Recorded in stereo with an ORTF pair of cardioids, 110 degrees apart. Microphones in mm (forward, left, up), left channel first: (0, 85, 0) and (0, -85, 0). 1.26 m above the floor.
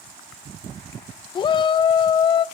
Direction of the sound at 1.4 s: 30° left.